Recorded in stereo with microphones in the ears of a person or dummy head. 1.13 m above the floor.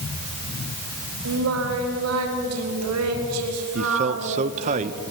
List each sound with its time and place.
1.2 s singing: 85° right, 4 m
3.8 s a man speaking: 35° right (ahead or behind), 0.8 m